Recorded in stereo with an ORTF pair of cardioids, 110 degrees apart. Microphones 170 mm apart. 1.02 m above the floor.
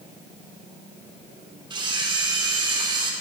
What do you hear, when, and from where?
1.7 s a camera shutter: 25° right, 2.5 m